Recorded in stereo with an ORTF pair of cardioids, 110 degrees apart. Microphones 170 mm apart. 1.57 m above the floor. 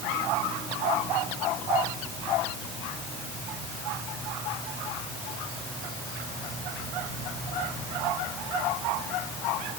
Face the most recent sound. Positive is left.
No sound to turn to.